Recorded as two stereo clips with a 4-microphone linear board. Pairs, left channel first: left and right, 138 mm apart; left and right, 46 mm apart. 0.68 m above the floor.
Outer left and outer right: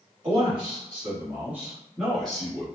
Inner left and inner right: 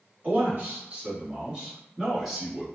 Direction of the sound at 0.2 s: 40° right (ahead or behind).